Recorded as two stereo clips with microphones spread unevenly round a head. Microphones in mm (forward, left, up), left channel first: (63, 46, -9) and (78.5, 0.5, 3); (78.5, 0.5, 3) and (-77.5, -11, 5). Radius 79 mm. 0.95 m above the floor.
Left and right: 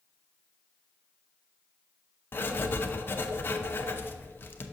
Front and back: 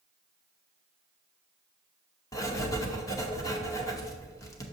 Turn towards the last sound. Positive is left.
turn(degrees=75)